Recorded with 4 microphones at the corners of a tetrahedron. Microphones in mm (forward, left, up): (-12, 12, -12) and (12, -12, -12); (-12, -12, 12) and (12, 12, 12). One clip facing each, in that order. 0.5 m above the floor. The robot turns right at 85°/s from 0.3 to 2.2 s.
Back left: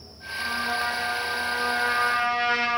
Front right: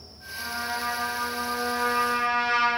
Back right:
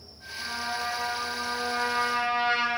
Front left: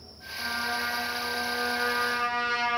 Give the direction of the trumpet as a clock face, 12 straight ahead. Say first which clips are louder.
Back left 4 dB, front left 2 dB; 11 o'clock.